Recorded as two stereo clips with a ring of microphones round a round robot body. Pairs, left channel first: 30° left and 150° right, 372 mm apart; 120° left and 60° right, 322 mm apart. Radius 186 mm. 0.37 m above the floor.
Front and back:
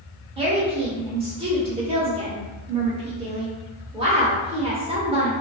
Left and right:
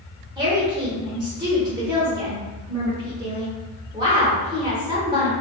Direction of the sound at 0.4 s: 110° right.